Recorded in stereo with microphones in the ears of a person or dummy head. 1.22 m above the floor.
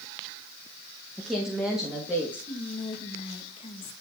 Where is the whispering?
30° left (ahead or behind), 1.4 m.